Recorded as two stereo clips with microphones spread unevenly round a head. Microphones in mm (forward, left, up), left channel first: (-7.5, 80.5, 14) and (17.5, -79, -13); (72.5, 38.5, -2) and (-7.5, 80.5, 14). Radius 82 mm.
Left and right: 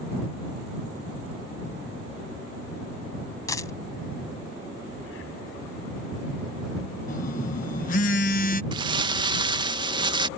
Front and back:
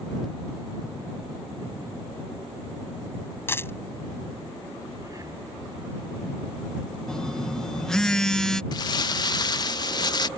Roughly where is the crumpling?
Ahead right.